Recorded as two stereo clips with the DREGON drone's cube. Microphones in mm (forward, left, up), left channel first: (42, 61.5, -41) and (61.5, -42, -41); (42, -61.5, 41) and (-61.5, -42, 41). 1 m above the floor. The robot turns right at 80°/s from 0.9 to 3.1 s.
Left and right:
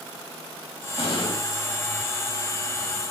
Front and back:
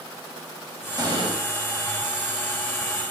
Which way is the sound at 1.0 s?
120° left.